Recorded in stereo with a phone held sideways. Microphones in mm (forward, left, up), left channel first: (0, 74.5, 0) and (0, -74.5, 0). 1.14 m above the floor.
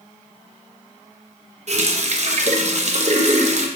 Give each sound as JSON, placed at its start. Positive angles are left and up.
{"t": 1.7, "sound": "a running tap", "side_deg": -55, "distance_m": 0.5}